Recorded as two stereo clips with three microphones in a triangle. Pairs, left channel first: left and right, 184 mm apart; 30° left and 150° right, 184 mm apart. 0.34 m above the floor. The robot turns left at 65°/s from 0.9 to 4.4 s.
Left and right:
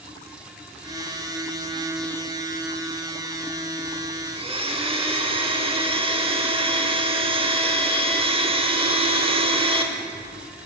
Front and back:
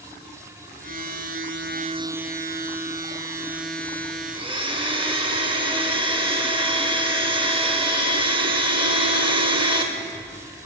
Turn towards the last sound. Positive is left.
turn(degrees=-115)